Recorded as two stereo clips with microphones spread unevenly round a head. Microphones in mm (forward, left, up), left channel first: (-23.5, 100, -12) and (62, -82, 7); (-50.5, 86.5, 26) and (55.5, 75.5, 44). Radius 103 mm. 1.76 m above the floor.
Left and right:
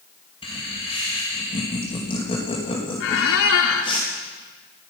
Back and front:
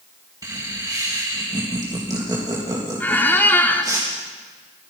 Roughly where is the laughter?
Ahead left.